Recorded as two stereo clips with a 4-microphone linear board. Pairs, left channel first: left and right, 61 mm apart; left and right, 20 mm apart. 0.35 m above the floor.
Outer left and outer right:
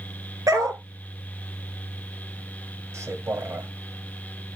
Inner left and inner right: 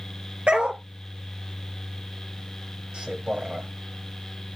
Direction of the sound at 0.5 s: 75° right (ahead or behind).